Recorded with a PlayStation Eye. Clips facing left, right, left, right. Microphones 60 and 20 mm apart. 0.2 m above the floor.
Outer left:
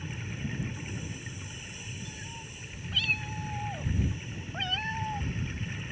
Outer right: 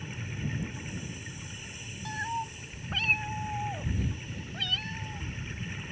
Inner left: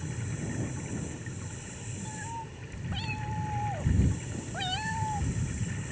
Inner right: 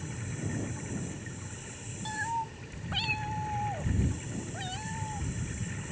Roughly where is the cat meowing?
Right.